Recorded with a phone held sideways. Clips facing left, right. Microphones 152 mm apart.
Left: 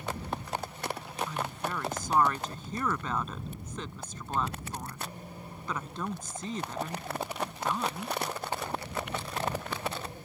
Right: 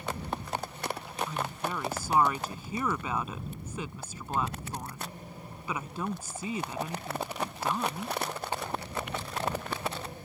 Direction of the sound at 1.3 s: 10° right (ahead or behind).